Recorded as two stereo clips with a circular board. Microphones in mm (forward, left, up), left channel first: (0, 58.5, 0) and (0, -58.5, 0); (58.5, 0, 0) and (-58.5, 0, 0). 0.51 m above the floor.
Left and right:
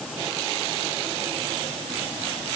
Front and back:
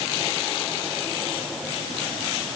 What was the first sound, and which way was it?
Only background noise.